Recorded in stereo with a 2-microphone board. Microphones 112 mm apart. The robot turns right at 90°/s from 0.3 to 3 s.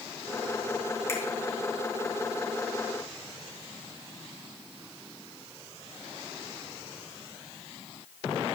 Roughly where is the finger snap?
Left.